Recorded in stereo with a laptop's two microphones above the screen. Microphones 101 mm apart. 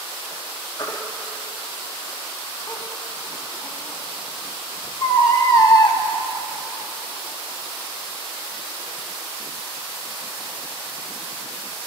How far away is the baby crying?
About 1.5 m.